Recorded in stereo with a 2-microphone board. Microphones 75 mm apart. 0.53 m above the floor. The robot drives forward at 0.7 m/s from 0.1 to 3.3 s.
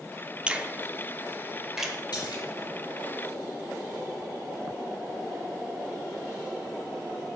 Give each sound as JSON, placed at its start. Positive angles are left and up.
{"t": 0.5, "sound": "a finger snap", "side_deg": -15, "distance_m": 0.6}
{"t": 2.1, "sound": "a splash", "side_deg": 85, "distance_m": 4.0}